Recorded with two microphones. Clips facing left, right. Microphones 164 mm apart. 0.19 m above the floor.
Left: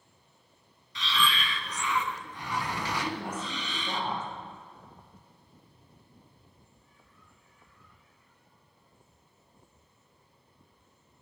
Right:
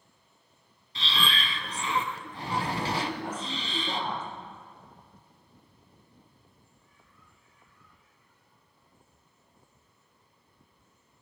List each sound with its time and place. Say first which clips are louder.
0.9 s breathing: left 2 dB; 30° right (ahead or behind), 0.7 m
3.0 s a woman speaking: right 1 dB; 10° left (ahead or behind), 4 m